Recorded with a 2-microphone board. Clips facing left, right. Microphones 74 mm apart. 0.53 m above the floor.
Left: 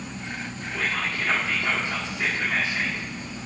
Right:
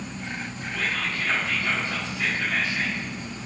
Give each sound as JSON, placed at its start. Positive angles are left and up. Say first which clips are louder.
{"t": 0.7, "sound": "whispering", "louder": "left 1 dB", "side_deg": 20, "distance_m": 1.4}